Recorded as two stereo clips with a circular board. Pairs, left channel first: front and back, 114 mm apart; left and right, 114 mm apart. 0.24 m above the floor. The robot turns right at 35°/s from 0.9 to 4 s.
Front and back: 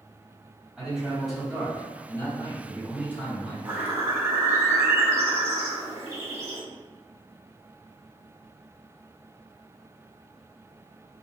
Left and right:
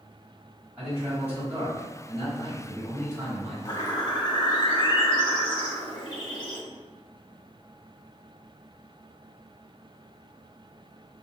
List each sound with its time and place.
0.8 s a man speaking: 105° right, 1.6 m; by 3.5 s 15° right, 1.6 m
3.6 s a bird: 110° left, 0.7 m; by 6.6 s 120° left, 0.7 m